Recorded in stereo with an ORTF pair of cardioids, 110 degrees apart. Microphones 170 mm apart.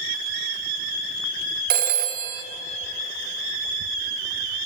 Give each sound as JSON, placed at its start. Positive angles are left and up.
{"t": 1.7, "sound": "a phone ringing", "azimuth_deg": -65, "distance_m": 0.7}